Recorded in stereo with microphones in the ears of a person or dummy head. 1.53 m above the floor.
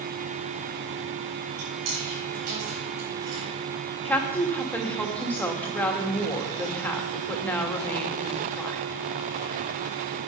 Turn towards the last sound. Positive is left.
turn(degrees=10)  # may be behind; listen again after turning